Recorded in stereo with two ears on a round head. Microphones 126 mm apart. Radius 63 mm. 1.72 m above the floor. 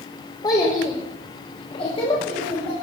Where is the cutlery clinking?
I don't hear cutlery clinking.